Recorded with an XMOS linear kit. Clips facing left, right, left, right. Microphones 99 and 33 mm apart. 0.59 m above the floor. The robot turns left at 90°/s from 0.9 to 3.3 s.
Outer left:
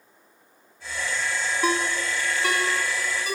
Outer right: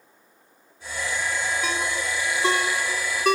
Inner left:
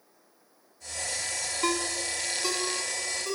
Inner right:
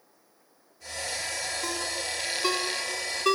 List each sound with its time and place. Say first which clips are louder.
1.6 s a ringtone: outer left 2 dB, inner left 3 dB; 45° left (ahead or behind), 2 m; by 3.4 s 75° right (ahead or behind), 2 m